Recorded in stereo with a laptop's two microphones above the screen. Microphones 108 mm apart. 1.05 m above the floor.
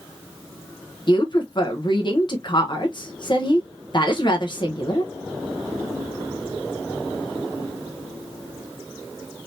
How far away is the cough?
I don't hear a cough.